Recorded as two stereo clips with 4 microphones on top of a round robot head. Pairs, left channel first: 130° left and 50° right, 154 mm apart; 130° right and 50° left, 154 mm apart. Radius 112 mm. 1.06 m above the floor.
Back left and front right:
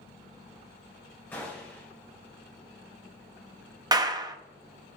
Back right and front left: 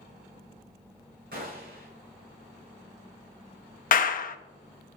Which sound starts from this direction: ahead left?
A gunshot, at 1.3 s.